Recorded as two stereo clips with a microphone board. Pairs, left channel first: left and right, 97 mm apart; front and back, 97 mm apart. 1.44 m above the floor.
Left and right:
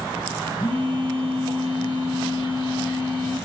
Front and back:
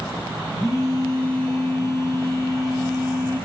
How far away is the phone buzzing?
About 0.8 m.